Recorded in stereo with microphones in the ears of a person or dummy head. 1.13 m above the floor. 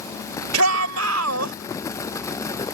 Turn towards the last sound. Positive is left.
turn(degrees=-85)